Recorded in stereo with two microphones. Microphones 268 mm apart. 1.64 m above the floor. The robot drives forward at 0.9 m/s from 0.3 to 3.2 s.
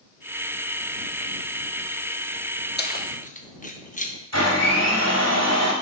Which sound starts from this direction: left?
Keys jangling, at 2.8 s.